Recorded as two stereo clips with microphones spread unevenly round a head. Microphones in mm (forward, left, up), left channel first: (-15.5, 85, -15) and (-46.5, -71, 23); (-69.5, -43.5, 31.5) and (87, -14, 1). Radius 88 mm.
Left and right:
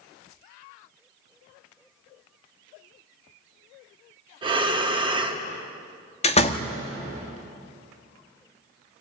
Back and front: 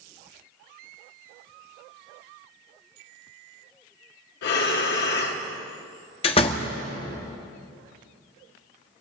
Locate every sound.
4.4 s breathing: 155° right, 1.9 m
6.2 s a door slam: 135° left, 1.3 m